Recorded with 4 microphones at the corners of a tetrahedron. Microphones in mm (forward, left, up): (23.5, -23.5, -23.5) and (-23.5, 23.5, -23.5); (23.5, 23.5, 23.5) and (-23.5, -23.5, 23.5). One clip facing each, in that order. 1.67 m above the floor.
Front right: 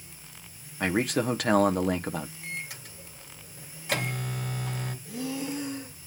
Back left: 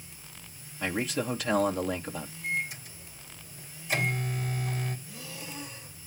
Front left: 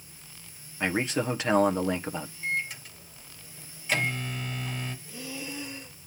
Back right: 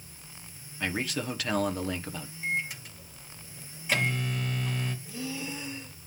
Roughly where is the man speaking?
Ahead.